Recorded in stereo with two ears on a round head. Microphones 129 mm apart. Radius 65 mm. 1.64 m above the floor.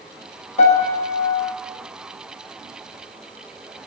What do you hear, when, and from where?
0.6 s a piano: 45° left (ahead or behind), 1.3 m